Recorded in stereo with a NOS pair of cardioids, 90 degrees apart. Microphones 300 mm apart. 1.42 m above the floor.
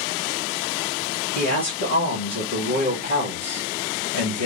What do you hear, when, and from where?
1.4 s a man speaking: 35° left, 2.0 m